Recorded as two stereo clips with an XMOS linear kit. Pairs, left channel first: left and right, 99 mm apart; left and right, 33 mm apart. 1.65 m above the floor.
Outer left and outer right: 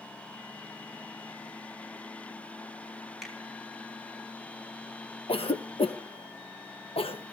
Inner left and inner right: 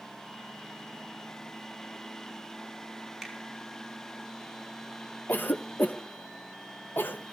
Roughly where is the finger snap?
Centre.